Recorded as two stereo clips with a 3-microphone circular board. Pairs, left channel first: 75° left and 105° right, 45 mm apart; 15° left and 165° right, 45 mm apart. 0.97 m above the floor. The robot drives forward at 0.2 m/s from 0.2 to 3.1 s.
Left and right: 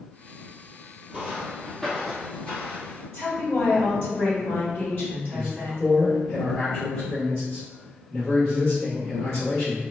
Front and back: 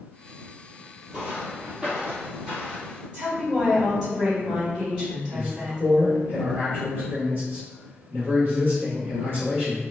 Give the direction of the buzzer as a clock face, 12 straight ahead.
No buzzer in this recording.